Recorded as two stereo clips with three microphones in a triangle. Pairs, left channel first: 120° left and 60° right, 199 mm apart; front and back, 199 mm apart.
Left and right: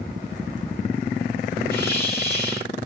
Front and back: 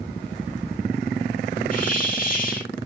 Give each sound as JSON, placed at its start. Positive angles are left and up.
{"t": 1.7, "sound": "a hiss", "azimuth_deg": 45, "distance_m": 2.5}